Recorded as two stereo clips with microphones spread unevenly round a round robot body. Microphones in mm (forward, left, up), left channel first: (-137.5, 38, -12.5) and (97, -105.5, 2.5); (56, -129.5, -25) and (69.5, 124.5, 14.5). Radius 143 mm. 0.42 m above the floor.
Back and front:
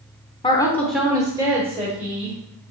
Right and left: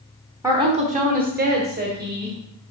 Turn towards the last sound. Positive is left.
turn(degrees=35)